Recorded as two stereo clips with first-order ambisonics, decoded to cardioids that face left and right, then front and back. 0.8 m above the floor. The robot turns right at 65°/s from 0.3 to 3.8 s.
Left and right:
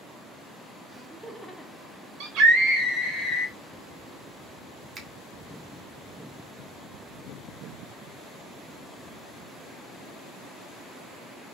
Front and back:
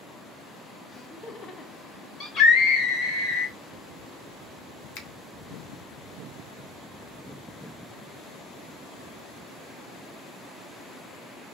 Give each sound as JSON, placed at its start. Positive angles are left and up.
{"t": 0.9, "sound": "laughter", "azimuth_deg": -30, "distance_m": 0.6}
{"t": 2.2, "sound": "a scream", "azimuth_deg": -65, "distance_m": 3.0}
{"t": 5.0, "sound": "a finger snap", "azimuth_deg": -15, "distance_m": 1.1}